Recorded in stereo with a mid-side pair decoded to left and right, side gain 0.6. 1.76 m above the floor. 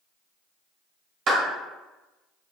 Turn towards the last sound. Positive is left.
turn(degrees=-60)